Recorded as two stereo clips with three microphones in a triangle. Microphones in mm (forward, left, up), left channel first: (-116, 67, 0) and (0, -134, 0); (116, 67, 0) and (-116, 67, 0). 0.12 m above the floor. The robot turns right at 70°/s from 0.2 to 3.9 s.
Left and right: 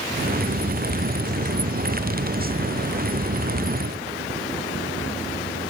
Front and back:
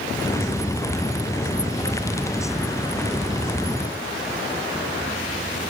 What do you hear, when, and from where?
Only background noise.